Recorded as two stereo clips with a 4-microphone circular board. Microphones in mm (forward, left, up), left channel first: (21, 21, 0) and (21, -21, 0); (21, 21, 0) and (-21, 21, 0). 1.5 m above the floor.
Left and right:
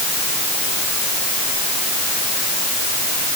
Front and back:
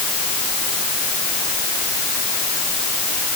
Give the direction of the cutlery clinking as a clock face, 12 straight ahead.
No cutlery clinking in this recording.